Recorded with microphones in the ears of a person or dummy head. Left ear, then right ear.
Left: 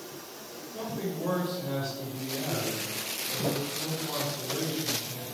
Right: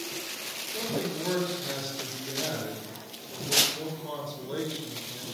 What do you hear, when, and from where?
0.7 s a man speaking: 30° right (ahead or behind), 3 m